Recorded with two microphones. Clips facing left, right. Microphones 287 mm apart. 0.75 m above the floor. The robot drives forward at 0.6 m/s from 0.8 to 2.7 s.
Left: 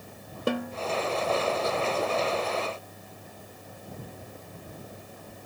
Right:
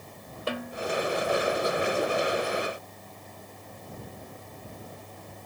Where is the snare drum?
55° left (ahead or behind), 0.7 m.